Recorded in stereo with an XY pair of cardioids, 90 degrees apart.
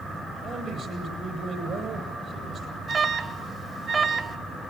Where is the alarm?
55° right, 1.9 m.